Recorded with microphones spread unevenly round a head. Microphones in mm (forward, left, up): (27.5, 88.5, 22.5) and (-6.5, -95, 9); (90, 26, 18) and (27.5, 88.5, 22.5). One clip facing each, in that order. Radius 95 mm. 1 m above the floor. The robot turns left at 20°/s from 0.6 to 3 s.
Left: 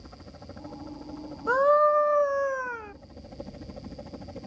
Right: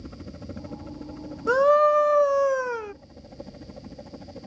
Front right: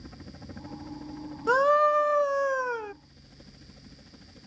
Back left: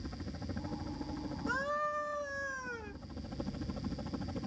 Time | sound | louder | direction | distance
0.0 | a helicopter | right 7 dB, back left 2 dB | 140° right | ?
1.5 | a scream | right 3 dB, front right 15 dB | 50° right | ?